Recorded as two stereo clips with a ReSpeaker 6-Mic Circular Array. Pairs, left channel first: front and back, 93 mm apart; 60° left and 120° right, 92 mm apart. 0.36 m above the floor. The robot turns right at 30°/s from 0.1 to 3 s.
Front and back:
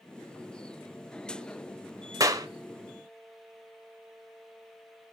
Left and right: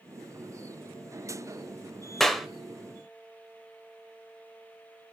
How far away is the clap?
About 1.0 m.